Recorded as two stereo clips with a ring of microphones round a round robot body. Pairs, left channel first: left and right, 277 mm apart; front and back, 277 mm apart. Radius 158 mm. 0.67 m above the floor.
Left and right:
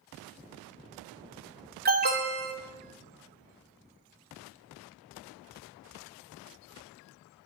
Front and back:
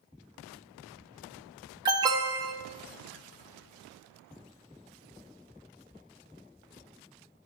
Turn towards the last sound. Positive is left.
turn(degrees=-115)